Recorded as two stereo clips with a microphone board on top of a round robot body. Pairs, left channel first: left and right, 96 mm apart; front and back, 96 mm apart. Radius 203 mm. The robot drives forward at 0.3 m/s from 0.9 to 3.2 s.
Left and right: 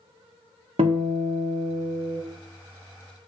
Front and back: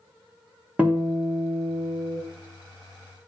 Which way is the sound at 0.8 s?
105° right.